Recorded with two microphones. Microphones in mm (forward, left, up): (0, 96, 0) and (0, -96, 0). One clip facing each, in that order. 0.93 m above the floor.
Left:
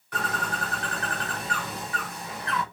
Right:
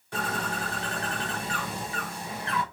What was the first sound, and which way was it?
A bird, 25° right (ahead or behind).